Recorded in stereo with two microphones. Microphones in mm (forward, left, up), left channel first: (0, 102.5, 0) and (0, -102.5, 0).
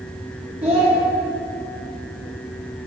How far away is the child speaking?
About 1.0 m.